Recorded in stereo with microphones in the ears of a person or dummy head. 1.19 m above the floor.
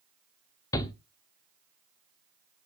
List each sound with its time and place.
0.7 s a shout: 15° left (ahead or behind), 0.6 m